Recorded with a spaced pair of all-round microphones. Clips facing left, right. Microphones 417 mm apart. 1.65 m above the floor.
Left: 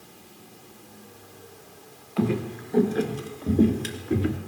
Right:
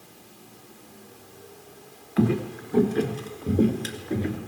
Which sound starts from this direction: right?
Footsteps, at 2.2 s.